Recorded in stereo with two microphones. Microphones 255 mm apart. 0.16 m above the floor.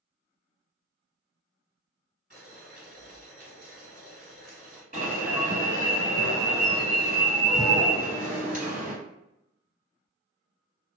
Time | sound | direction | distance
2.3 | boiling | 35° right (ahead or behind) | 1.9 m
4.9 | an alarm | 35° right (ahead or behind) | 1.2 m